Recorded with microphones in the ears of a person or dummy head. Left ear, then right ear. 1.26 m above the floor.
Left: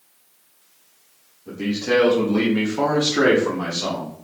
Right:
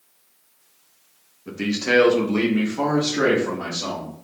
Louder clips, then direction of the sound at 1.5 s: Even; 45° right (ahead or behind).